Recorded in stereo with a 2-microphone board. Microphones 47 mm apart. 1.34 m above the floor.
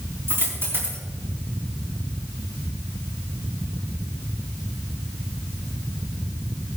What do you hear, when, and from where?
0.3 s a dropped coin: 55° right (ahead or behind), 4.5 m